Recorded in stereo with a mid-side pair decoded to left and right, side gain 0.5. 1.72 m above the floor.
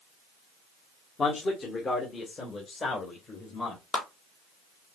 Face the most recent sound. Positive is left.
turn(degrees=55)